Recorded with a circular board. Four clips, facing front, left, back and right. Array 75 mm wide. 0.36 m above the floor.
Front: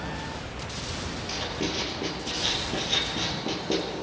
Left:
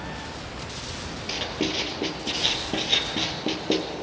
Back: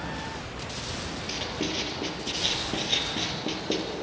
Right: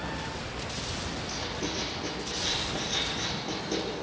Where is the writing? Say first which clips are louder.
Left 9 dB, front 1 dB; 100° left, 3 m.